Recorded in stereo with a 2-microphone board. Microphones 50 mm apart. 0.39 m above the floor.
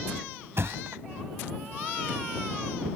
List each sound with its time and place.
0.6 s a thud: 55° right (ahead or behind)